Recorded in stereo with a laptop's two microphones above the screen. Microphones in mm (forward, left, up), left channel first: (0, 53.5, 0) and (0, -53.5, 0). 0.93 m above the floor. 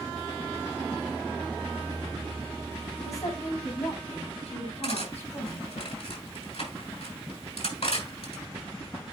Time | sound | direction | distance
3.0 | a woman speaking | 85° left | 5.5 m
4.8 | cutlery clinking | 75° left (ahead or behind) | 5.5 m